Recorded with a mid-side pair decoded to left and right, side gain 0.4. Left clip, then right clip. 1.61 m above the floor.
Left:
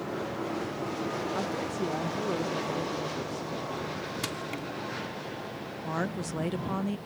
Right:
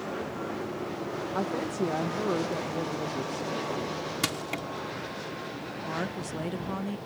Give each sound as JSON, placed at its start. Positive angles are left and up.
{"t": 1.4, "sound": "a woman speaking", "azimuth_deg": -30}
{"t": 4.2, "sound": "crushing", "azimuth_deg": -50}
{"t": 5.8, "sound": "a woman speaking", "azimuth_deg": 20}